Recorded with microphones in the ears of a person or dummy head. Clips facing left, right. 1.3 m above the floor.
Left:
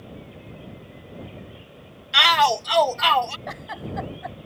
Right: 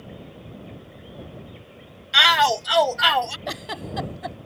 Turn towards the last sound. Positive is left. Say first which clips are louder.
# right 2 dB
turn(degrees=-50)  # may be behind; listen again after turning